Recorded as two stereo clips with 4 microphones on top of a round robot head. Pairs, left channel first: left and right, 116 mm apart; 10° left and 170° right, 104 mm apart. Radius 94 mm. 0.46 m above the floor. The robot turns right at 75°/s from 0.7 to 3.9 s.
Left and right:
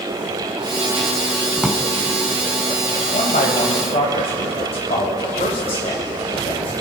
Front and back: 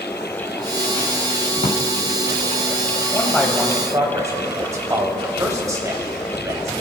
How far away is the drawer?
About 1.8 m.